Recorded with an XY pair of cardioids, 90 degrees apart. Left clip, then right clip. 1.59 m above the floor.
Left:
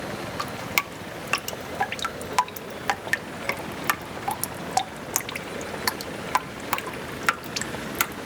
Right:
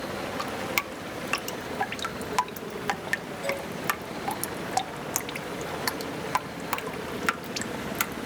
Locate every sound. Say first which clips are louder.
0.4 s dripping: left 4 dB; 30° left